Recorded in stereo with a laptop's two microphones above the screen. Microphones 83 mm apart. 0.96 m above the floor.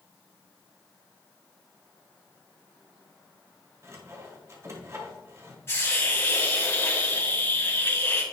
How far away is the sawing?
About 1.6 m.